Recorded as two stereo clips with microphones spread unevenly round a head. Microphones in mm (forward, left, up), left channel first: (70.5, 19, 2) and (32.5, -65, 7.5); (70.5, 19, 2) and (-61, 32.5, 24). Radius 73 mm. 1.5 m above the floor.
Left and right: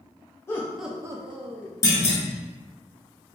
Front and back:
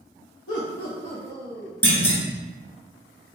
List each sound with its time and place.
0.5 s laughter: straight ahead, 0.7 m; by 1.7 s 100° right, 1.0 m
1.8 s a clunk: 70° left, 1.0 m